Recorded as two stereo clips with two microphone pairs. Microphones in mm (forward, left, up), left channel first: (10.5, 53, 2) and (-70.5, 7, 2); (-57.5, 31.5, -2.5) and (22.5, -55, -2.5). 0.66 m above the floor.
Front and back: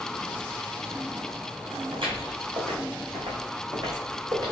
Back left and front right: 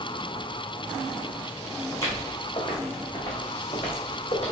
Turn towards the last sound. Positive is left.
turn(degrees=160)